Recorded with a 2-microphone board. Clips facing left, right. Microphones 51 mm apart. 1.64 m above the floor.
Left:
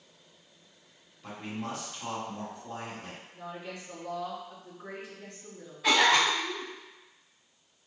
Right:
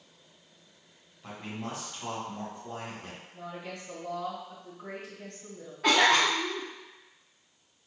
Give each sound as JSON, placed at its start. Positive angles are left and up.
{"t": 1.2, "sound": "a man speaking", "side_deg": 0, "distance_m": 1.2}
{"t": 3.3, "sound": "a woman speaking", "side_deg": -55, "distance_m": 1.7}
{"t": 5.8, "sound": "a cough", "side_deg": -60, "distance_m": 0.9}